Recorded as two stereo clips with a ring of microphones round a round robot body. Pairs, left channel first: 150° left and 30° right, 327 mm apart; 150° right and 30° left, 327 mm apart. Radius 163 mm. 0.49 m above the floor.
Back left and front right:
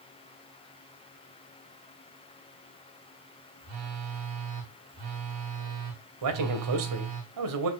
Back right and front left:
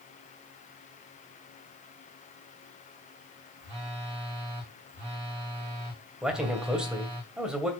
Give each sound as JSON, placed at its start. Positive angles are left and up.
{"t": 3.6, "sound": "a phone buzzing", "azimuth_deg": -10, "distance_m": 5.5}
{"t": 6.2, "sound": "a man speaking", "azimuth_deg": -55, "distance_m": 2.5}